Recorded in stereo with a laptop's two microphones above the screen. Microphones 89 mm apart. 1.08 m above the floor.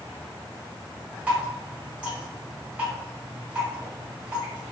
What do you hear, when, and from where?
1.3 s dripping: 15° right (ahead or behind), 1.2 m